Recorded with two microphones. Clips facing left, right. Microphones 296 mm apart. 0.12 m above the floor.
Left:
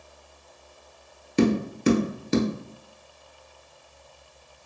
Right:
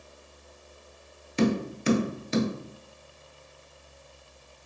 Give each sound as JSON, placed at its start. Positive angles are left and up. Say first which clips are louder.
{"t": 1.4, "sound": "tapping", "louder": "left 4 dB", "side_deg": 50, "distance_m": 0.7}